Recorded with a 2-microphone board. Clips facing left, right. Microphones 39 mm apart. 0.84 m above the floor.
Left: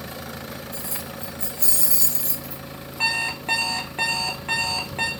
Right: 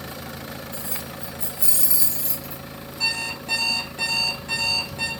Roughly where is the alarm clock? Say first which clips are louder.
Left 3 dB; left.